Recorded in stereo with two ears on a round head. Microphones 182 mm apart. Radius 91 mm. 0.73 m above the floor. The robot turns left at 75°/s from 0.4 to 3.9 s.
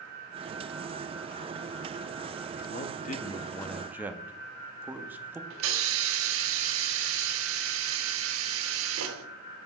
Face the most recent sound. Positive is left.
turn(degrees=-70)  # may be behind; listen again after turning